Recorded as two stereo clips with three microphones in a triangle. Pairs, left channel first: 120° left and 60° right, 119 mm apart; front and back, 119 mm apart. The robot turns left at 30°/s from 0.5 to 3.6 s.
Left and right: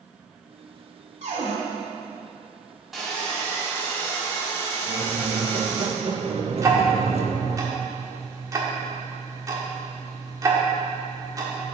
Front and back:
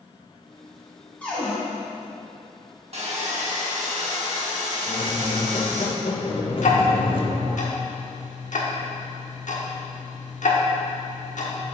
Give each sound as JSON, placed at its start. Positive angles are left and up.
{"t": 1.2, "sound": "a cupboard door", "azimuth_deg": -80, "distance_m": 1.9}
{"t": 2.9, "sound": "sawing", "azimuth_deg": -150, "distance_m": 1.3}
{"t": 4.9, "sound": "a squeak", "azimuth_deg": -35, "distance_m": 0.6}
{"t": 6.6, "sound": "ticking", "azimuth_deg": 5, "distance_m": 1.0}